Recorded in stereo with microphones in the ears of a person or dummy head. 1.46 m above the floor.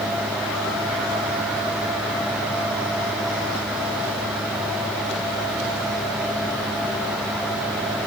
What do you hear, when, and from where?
Only background noise.